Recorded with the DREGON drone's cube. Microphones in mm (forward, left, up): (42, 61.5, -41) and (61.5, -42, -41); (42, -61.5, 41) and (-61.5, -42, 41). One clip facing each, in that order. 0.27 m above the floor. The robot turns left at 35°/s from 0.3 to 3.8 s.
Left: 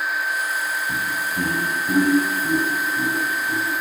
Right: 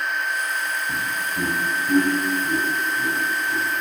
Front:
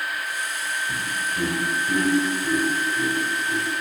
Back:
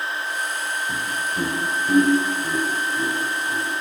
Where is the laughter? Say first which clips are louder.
Left 1 dB, back 2 dB; 165° right, 1.1 m; by 3.8 s 95° left, 1.1 m.